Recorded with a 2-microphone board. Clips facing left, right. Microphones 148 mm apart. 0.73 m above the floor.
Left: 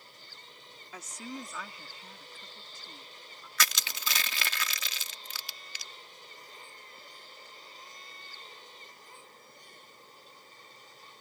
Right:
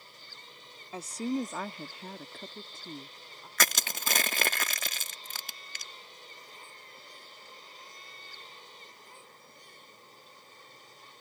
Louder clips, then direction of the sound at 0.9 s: Right 10 dB; 30° right (ahead or behind).